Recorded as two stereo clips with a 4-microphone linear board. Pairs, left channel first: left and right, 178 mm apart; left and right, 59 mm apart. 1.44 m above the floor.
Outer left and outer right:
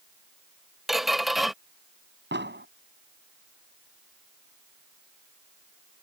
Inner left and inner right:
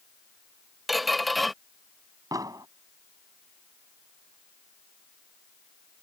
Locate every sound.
0.9 s a squeak: centre (ahead or behind)
2.3 s an explosion: 75° right (ahead or behind)